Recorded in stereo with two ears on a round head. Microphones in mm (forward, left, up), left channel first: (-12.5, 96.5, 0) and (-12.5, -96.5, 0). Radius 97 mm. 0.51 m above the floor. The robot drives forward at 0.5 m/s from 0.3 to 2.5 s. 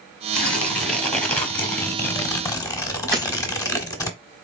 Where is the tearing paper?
5° left (ahead or behind), 1.7 m; by 4.1 s 15° left (ahead or behind), 0.7 m.